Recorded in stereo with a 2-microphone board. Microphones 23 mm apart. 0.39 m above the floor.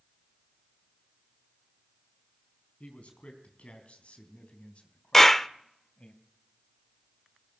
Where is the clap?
10° left (ahead or behind), 0.6 m.